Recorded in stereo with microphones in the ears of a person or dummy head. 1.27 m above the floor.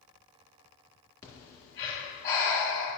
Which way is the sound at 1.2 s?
20° left (ahead or behind).